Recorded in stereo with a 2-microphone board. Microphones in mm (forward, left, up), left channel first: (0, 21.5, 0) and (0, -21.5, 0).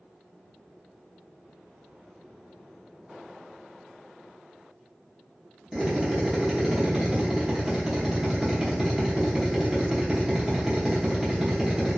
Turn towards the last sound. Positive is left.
turn(degrees=-10)  # may be behind; listen again after turning